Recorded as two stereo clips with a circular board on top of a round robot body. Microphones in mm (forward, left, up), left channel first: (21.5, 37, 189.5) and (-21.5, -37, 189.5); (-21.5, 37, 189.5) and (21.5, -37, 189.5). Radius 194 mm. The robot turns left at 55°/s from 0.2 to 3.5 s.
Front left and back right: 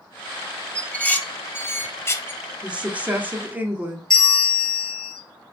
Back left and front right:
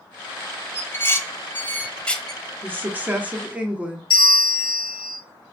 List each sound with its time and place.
0.8 s dishes clattering: 130° left, 0.7 m; by 2.4 s 40° left, 0.7 m
2.6 s a woman speaking: 60° right, 1.0 m; by 4.0 s 110° right, 1.0 m
4.1 s a bell: 145° left, 0.7 m